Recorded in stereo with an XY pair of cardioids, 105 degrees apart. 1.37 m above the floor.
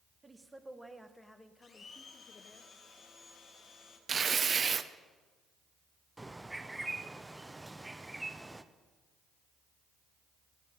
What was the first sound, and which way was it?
A woman speaking, 25° right.